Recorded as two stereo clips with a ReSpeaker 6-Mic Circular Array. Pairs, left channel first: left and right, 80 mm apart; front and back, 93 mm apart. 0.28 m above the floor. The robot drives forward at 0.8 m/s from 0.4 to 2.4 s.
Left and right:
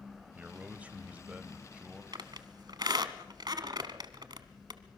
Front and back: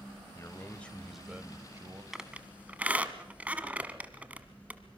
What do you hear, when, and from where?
0.3 s a man speaking: 30° right, 1.1 m; by 2.0 s 160° right, 1.2 m
2.1 s a squeak: 95° right, 1.1 m; by 4.8 s 110° right, 1.1 m